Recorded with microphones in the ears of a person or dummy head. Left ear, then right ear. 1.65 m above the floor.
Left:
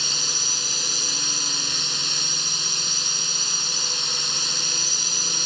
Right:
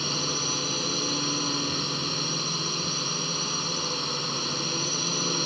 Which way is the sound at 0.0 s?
50° left (ahead or behind).